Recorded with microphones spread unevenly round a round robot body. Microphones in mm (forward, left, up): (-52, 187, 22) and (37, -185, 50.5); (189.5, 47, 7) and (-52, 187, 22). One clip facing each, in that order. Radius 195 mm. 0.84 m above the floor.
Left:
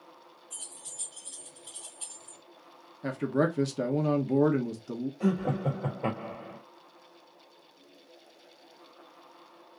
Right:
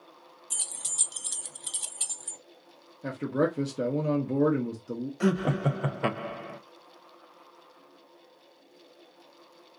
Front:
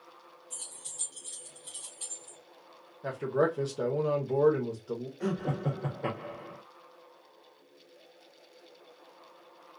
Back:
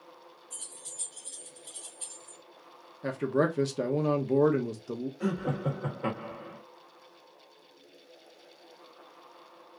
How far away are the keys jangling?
About 0.6 m.